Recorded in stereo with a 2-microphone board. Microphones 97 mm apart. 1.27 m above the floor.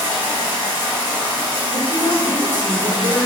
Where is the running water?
25° right (ahead or behind), 1.7 m.